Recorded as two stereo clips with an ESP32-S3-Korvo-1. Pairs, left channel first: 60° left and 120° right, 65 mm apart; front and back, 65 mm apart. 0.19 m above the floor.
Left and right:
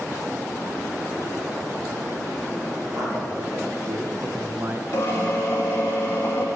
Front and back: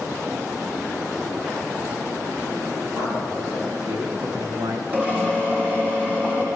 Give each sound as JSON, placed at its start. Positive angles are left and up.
{"t": 2.9, "sound": "a man speaking", "azimuth_deg": -160, "distance_m": 4.0}
{"t": 4.9, "sound": "a drill", "azimuth_deg": 115, "distance_m": 4.5}